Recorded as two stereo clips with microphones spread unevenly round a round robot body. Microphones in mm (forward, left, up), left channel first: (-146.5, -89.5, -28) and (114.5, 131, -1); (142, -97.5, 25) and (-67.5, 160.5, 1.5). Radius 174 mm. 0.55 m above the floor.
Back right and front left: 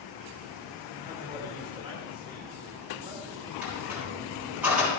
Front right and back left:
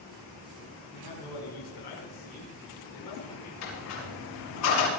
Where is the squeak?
45° right, 6.5 m.